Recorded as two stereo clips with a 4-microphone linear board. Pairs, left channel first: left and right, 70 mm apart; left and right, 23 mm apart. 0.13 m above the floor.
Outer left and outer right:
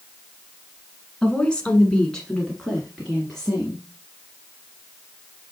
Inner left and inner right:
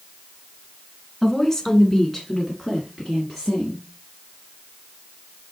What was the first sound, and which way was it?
A woman speaking, 15° left (ahead or behind).